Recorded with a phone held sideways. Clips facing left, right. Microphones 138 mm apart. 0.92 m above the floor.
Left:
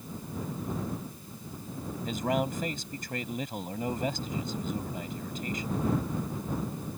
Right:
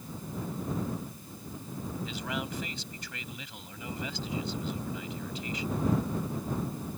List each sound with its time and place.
2.0 s a man speaking: 45° left (ahead or behind)